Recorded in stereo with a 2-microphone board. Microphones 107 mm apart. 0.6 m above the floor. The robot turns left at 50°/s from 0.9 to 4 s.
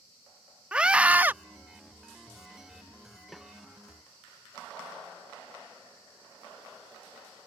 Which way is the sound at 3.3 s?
Centre (ahead or behind).